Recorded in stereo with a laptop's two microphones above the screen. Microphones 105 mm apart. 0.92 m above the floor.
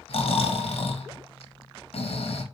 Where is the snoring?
65° left (ahead or behind), 0.9 m.